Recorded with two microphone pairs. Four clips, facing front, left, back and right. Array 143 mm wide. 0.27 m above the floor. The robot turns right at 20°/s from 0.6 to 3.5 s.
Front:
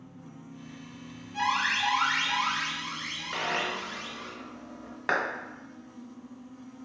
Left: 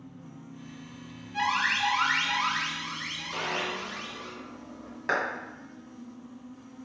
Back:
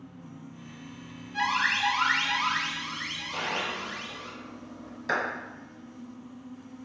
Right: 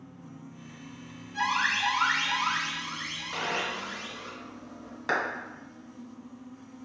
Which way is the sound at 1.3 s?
110° left.